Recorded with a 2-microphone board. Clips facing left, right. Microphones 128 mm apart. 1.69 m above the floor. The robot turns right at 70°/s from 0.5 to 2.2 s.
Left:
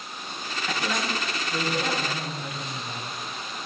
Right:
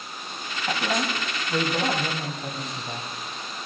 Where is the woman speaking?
140° right, 3 m; by 3.1 s 30° right, 3 m.